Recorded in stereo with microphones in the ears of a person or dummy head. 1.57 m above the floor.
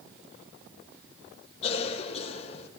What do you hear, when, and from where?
1.6 s a cough: 40° left (ahead or behind), 3 m